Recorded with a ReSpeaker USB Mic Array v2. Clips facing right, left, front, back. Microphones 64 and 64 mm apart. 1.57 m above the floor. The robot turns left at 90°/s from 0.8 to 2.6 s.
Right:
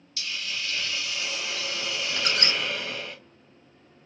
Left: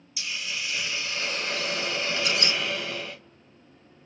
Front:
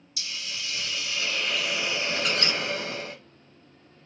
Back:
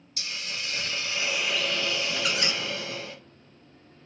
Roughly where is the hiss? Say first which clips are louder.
Even, back 1 dB; behind.